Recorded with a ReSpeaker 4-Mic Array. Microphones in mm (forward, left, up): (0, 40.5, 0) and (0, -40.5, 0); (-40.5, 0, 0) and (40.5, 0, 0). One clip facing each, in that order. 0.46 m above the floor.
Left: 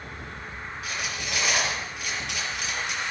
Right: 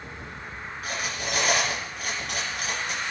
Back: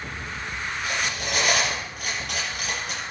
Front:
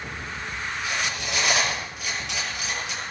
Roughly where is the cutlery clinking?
Behind right.